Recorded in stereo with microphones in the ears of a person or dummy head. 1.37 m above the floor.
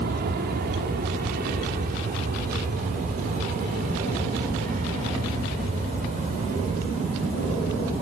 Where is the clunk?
No clunk in this recording.